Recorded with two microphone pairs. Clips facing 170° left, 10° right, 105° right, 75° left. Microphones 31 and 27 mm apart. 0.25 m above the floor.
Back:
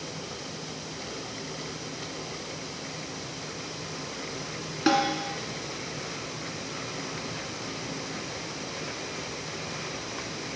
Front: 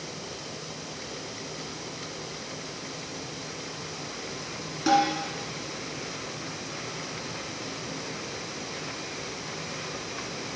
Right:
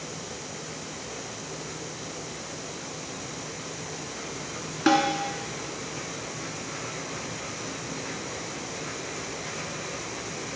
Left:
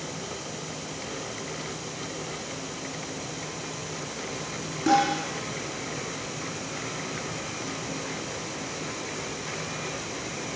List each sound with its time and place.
4.9 s a snare drum: 135° right, 1.8 m